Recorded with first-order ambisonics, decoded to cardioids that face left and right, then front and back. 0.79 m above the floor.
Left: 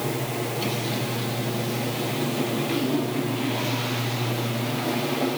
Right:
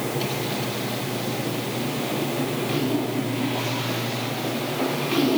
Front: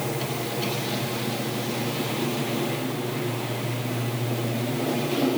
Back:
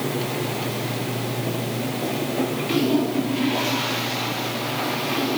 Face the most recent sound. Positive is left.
No sound to turn to.